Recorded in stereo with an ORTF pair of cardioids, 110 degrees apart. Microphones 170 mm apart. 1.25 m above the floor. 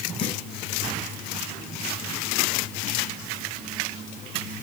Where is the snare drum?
30° left, 7.5 m.